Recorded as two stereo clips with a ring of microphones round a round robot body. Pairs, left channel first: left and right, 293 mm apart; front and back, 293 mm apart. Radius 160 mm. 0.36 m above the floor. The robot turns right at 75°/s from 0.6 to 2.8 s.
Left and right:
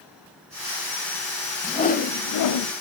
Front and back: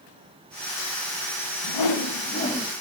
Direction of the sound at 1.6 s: 10° left.